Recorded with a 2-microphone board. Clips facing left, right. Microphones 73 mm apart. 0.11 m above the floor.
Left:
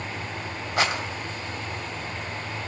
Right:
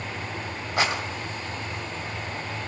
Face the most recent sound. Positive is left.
turn(degrees=-10)  # may be behind; listen again after turning